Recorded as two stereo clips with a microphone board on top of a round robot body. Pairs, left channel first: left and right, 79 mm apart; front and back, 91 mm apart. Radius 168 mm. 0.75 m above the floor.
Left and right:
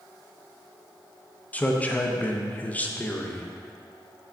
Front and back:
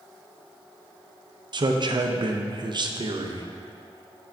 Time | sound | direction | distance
1.5 | a man speaking | 160° left | 0.7 m